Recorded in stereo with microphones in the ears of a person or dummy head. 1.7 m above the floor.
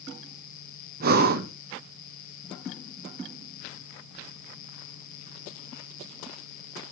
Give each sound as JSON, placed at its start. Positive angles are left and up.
{"t": 1.0, "sound": "breathing", "side_deg": -50, "distance_m": 1.2}